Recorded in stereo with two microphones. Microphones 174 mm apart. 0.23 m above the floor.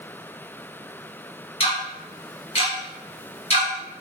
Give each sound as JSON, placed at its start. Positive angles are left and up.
{"t": 1.6, "sound": "ticking", "side_deg": 35, "distance_m": 1.3}